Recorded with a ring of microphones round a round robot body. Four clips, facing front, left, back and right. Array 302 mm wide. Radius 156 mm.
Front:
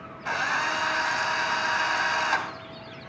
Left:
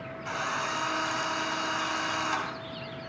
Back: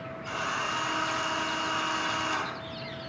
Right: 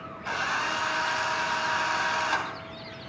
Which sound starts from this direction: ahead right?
A drill, at 0.2 s.